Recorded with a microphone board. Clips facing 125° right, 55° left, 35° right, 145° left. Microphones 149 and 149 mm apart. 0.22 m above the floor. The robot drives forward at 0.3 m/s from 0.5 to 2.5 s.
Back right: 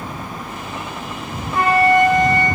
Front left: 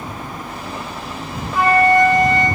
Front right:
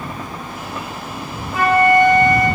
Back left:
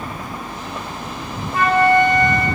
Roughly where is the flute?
Right.